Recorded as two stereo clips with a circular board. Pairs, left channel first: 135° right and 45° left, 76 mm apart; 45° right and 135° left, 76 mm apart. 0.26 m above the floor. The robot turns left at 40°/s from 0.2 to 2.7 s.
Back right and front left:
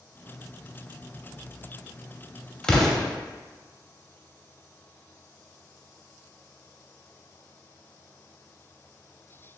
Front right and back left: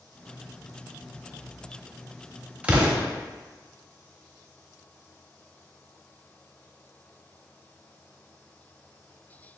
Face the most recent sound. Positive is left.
turn(degrees=155)